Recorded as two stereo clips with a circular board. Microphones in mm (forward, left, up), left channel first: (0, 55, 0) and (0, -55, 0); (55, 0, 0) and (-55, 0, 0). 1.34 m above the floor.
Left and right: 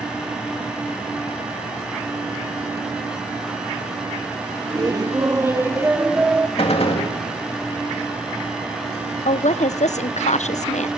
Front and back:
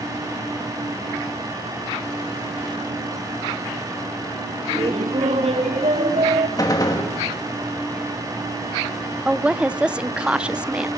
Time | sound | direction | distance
4.7 | laughter | 145° right | 2.5 m
6.6 | a gunshot | 55° left | 2.5 m
9.2 | a woman speaking | 100° left | 0.7 m